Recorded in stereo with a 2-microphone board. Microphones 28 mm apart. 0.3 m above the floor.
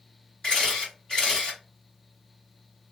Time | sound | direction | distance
0.4 | a camera shutter | 25° left (ahead or behind) | 1.6 m